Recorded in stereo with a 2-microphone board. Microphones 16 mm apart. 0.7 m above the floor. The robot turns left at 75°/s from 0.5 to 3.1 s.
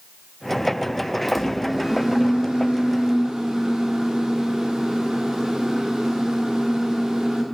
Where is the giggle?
I don't hear a giggle.